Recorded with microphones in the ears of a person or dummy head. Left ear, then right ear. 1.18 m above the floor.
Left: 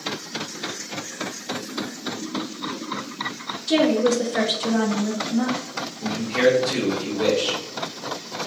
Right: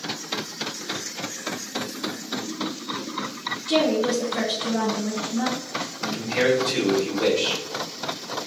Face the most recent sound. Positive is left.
turn(degrees=5)  # may be behind; listen again after turning